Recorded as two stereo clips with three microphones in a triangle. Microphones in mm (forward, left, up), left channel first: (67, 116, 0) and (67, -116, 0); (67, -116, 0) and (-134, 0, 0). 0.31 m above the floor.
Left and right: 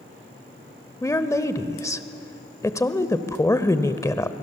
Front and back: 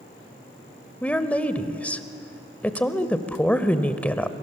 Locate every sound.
1.0 s a woman speaking: 40° left, 0.9 m